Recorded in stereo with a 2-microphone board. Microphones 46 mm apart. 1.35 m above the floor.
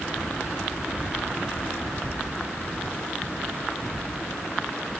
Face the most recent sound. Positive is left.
No sound to turn to.